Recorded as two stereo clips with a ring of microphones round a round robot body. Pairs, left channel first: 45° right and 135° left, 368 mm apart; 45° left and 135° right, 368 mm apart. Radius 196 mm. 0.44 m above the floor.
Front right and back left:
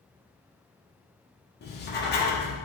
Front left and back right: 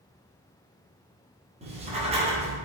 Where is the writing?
80° right, 1.0 m.